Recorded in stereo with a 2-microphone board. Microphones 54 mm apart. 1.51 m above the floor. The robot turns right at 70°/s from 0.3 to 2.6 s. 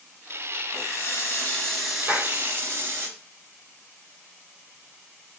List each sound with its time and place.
0.7 s a running tap: 95° left, 5.5 m; by 3.1 s 130° right, 5.5 m
2.1 s a clap: 25° right (ahead or behind), 4.5 m; by 2.4 s 45° right (ahead or behind), 4.5 m